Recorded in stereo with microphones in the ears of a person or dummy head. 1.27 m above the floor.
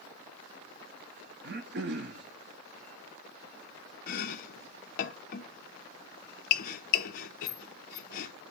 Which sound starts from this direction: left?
Chopping, at 4.1 s.